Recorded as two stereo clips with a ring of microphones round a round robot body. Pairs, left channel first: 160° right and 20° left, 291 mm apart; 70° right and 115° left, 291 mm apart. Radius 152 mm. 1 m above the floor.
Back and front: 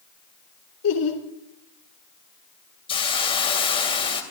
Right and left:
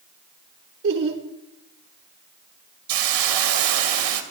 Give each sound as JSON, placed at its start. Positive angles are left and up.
{"t": 0.8, "sound": "laughter", "azimuth_deg": 160, "distance_m": 3.5}
{"t": 2.9, "sound": "a hiss", "azimuth_deg": 130, "distance_m": 2.5}